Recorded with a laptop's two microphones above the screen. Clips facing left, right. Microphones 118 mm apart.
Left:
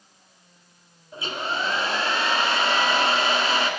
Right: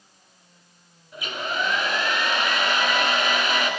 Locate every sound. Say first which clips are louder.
1.1 s a hair dryer: even; 30° left (ahead or behind), 2.5 m